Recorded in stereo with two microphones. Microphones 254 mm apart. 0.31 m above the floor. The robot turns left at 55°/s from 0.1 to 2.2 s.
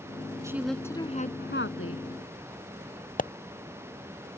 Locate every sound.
0.4 s a woman speaking: 165° right; by 2.0 s 105° left
3.2 s a pop: 35° left (ahead or behind)